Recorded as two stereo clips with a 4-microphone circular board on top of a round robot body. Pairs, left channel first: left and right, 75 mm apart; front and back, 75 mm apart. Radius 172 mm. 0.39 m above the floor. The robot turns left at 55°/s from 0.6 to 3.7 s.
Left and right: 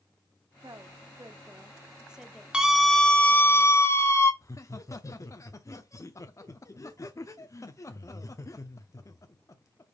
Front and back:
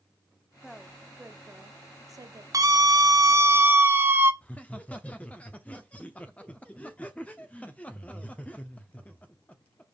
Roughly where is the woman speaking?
Right.